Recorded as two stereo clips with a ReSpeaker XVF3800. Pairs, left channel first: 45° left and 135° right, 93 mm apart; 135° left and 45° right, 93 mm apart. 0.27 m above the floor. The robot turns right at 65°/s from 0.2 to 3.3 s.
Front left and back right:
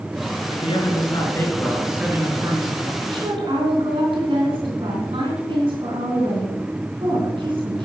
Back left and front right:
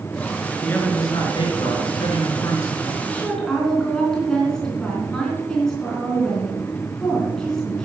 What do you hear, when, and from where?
0.5 s a man speaking: 50° left, 3.5 m; by 2.9 s 155° right, 3.5 m
3.0 s a woman speaking: 160° right, 3 m; by 7.8 s 140° right, 3 m